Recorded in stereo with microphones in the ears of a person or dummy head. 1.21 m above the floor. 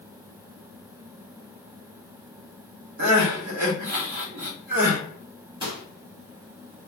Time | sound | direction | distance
3.0 | crying | 60° right (ahead or behind) | 1.1 m
5.6 | a microwave | 25° right (ahead or behind) | 0.9 m